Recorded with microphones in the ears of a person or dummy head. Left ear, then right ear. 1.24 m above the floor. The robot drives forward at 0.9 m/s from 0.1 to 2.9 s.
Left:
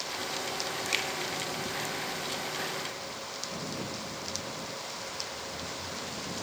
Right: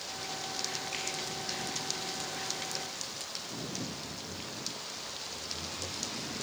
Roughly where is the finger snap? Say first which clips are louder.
Left 7 dB; left.